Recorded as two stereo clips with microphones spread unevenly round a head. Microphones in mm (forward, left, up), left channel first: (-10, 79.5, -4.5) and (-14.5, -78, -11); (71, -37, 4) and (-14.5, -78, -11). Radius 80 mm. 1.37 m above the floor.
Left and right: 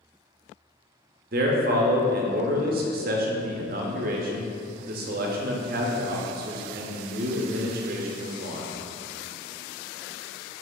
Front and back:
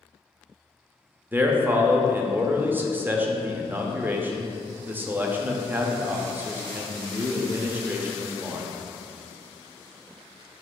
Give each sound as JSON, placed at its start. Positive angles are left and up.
{"t": 1.3, "sound": "a man speaking", "azimuth_deg": -95, "distance_m": 0.6}